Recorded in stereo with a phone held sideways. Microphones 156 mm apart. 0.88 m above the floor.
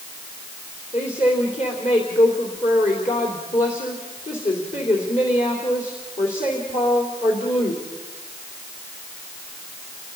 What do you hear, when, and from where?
0.9 s a woman speaking: 50° left (ahead or behind), 3 m